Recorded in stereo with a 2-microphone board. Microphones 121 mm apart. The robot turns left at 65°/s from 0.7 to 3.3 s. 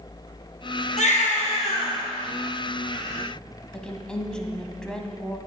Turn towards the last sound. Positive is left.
turn(degrees=5)  # may be behind; listen again after turning